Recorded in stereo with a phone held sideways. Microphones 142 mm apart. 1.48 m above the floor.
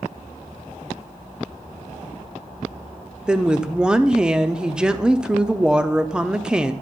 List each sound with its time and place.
3.3 s a woman speaking: 5° right (ahead or behind), 0.5 m